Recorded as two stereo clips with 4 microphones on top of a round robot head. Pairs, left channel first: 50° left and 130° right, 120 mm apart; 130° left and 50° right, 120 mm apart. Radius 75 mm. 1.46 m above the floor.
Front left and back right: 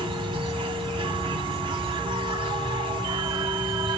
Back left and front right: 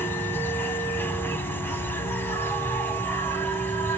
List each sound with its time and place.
0.0 s an insect: 160° right, 1.0 m